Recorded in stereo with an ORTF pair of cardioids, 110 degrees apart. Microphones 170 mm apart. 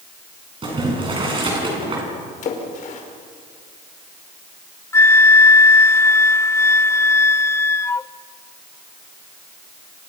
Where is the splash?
50° left, 5 m.